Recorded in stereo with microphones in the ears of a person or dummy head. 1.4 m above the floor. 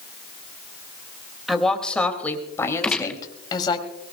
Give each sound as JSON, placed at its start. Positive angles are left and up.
{"t": 1.5, "sound": "a woman speaking", "side_deg": 0, "distance_m": 2.5}
{"t": 2.8, "sound": "a gunshot", "side_deg": 5, "distance_m": 0.5}